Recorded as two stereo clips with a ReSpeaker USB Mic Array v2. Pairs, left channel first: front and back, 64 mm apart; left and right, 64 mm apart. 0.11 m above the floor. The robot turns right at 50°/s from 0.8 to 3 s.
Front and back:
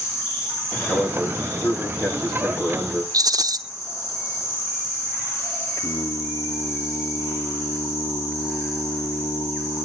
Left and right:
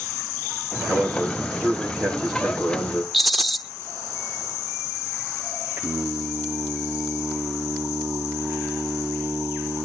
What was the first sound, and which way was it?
A man speaking, 60° right.